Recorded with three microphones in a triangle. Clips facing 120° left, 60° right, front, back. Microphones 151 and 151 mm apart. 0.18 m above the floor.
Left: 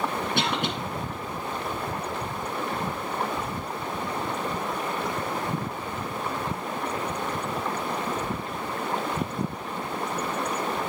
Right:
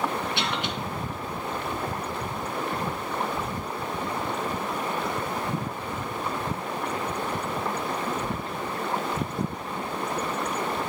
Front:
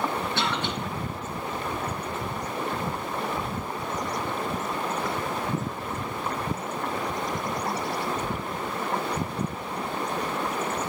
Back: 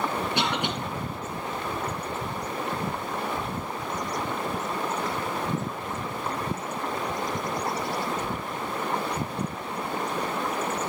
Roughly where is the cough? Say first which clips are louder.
Left 2 dB, back 1 dB; left.